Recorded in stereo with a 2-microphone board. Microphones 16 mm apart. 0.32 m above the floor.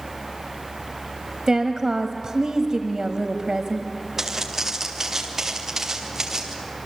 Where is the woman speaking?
45° right (ahead or behind), 1.3 m.